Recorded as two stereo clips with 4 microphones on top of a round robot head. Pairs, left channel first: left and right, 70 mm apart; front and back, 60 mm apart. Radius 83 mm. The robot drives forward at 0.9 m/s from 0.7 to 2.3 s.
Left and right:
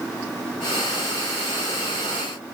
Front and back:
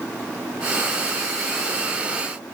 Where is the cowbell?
No cowbell in this recording.